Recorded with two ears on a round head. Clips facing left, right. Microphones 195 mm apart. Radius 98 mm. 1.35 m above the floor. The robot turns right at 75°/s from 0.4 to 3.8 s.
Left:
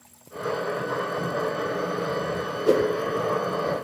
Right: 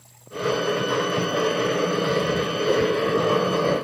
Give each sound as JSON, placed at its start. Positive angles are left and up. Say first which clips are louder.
{"t": 1.2, "sound": "writing", "louder": "right 4 dB", "side_deg": -45, "distance_m": 1.3}
{"t": 2.7, "sound": "a whoosh", "louder": "left 2 dB", "side_deg": 35, "distance_m": 0.7}